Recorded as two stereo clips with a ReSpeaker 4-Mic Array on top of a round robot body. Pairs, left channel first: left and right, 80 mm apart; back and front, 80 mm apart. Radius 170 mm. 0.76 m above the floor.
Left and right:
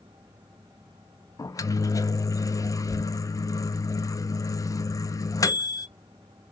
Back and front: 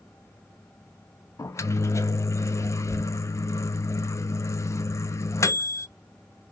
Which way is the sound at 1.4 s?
130° left.